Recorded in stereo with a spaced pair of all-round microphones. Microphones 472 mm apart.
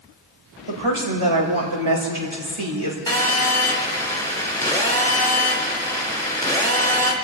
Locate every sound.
0.7 s a woman speaking: 80° right, 2.5 m
3.1 s a phone buzzing: 5° left (ahead or behind), 2.5 m